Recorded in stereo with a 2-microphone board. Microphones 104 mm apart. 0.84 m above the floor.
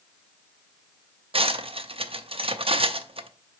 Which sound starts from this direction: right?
Cutlery clinking, at 1.3 s.